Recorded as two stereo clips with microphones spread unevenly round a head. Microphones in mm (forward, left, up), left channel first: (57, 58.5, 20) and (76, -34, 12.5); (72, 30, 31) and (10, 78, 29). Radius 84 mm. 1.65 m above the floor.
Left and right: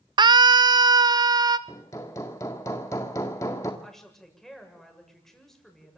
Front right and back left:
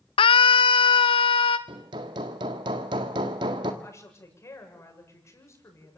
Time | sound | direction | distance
0.2 | a scream | 35° right | 0.8 m
1.7 | hammering | 165° left | 1.6 m
3.8 | a woman speaking | 15° left | 7.5 m